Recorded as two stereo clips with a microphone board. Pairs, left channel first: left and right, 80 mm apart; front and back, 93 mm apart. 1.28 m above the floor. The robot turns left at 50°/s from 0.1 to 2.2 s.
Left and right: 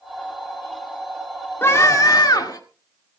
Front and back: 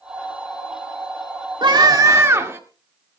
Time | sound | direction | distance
1.6 | a scream | 150° left | 2.0 m